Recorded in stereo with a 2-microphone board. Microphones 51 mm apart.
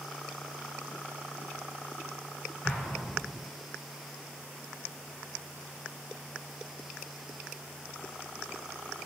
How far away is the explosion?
About 1.4 m.